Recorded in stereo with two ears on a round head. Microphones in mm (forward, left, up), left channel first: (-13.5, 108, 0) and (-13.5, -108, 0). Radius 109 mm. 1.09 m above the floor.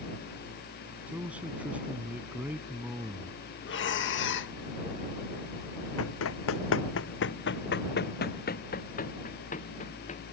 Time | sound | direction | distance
1.1 | a man speaking | 5° right (ahead or behind) | ?
3.6 | breathing | 50° left (ahead or behind) | ?
6.0 | running footsteps | 65° left (ahead or behind) | ?